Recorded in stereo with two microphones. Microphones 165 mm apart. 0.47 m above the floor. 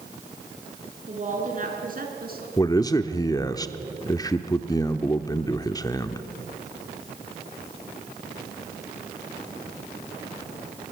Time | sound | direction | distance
1.1 | a woman speaking | 45° right (ahead or behind) | 5.5 m
2.6 | a man speaking | 20° left (ahead or behind) | 0.8 m